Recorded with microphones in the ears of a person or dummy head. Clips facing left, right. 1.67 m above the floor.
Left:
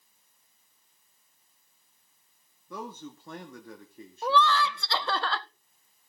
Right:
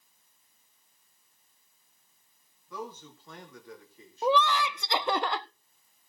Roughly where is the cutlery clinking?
No cutlery clinking in this recording.